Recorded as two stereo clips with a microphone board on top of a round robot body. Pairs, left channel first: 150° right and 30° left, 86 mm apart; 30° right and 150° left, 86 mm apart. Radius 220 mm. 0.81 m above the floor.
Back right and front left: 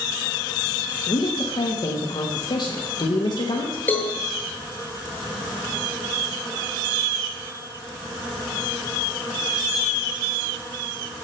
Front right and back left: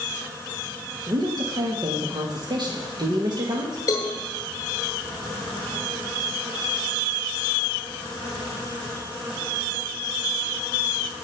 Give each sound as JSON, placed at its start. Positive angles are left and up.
{"t": 1.1, "sound": "a woman speaking", "azimuth_deg": 180, "distance_m": 1.3}
{"t": 3.9, "sound": "a cowbell", "azimuth_deg": -80, "distance_m": 0.9}